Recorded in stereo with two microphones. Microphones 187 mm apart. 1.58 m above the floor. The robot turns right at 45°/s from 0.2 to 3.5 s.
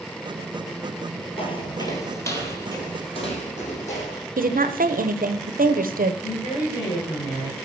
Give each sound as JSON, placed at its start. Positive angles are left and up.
{"t": 1.4, "sound": "footsteps", "side_deg": 30, "distance_m": 1.9}
{"t": 4.4, "sound": "a woman speaking", "side_deg": -50, "distance_m": 0.8}
{"t": 6.2, "sound": "a woman speaking", "side_deg": 35, "distance_m": 7.0}